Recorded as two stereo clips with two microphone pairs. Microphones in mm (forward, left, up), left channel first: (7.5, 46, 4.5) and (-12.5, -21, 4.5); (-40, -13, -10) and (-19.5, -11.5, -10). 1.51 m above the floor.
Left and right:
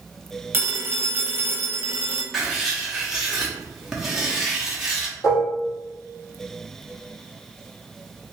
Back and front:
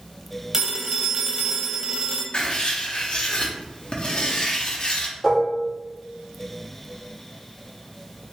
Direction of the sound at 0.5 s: 55° right.